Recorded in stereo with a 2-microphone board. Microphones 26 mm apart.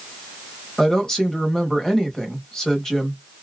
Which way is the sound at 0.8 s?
20° left (ahead or behind).